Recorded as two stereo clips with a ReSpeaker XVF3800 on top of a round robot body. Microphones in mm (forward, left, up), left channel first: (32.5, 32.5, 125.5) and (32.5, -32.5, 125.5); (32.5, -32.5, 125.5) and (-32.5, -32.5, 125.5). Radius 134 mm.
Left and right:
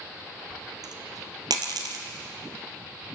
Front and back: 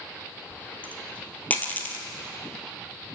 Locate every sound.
0.5 s a dropped coin: 65° right, 2 m